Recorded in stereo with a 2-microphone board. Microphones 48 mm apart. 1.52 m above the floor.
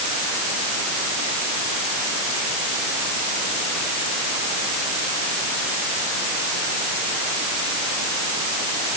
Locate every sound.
Only background noise.